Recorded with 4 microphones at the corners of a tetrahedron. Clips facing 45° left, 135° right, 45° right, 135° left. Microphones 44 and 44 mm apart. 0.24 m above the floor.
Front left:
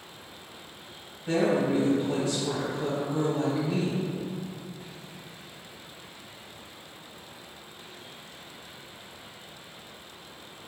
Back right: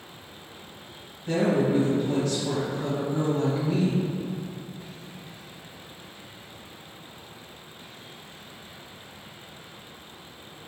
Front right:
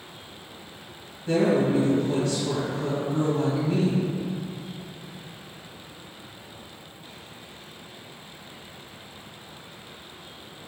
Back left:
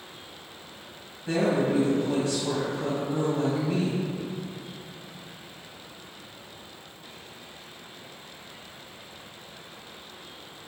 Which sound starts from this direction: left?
A woman speaking, at 1.3 s.